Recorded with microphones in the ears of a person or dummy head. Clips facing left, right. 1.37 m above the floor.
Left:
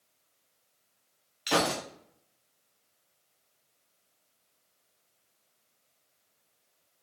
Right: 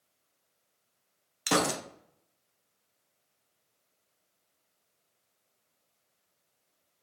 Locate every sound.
1.5 s a gunshot: 55° right (ahead or behind), 0.6 m